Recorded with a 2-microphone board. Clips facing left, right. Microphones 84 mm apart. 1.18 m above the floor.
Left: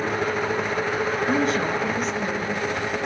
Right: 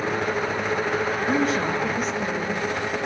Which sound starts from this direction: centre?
A woman speaking, at 1.3 s.